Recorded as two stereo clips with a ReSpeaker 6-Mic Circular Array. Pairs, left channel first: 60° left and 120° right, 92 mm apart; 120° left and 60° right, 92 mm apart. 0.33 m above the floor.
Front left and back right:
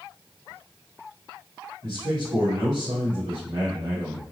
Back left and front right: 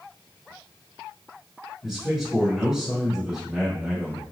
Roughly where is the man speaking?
Behind right.